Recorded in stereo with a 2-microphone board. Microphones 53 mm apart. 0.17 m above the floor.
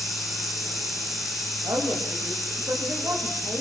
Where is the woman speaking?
80° right, 7 m.